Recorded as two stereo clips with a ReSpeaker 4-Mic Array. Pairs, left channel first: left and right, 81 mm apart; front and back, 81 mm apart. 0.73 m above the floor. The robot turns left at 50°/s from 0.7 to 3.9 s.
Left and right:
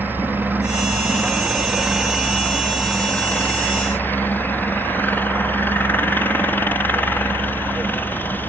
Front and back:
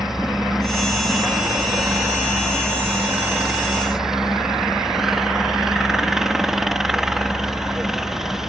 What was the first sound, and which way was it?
A helicopter, 100° right.